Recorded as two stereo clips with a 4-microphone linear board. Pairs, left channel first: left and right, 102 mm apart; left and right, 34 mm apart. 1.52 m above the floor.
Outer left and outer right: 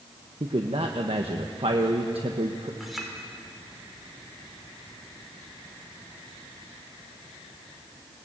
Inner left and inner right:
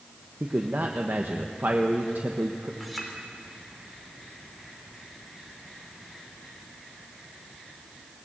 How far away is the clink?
About 3.5 m.